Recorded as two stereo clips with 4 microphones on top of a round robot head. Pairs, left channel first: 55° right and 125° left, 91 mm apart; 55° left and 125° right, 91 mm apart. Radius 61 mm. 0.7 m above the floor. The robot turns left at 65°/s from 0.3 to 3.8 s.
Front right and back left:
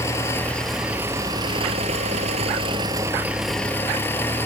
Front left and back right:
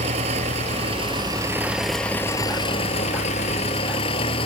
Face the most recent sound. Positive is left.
turn(degrees=20)